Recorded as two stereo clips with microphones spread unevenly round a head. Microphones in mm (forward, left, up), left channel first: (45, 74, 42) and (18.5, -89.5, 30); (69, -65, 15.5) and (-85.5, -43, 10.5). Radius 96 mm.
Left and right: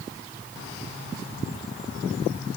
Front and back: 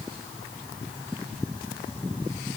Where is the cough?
I don't hear a cough.